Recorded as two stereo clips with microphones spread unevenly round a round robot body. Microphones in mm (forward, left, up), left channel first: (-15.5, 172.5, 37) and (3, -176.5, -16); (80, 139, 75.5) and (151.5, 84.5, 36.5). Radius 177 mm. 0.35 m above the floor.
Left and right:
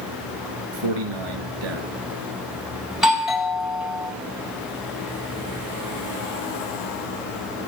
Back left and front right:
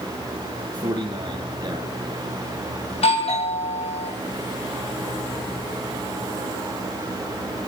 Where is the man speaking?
100° right, 4.5 m.